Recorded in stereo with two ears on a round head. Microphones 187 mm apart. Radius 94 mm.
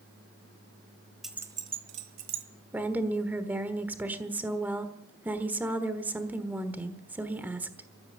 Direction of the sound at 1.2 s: Centre (ahead or behind).